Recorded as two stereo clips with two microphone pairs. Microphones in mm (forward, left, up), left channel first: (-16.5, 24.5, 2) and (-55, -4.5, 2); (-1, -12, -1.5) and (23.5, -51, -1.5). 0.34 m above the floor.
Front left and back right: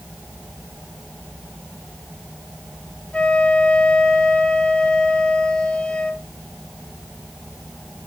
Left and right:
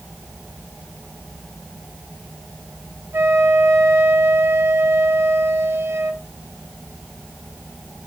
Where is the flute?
30° right, 1.6 m.